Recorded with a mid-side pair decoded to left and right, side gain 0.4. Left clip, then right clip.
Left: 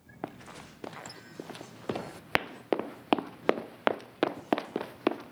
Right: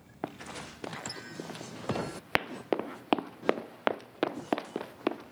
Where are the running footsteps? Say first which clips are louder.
Right 3 dB; 15° right; by 5.3 s 20° left.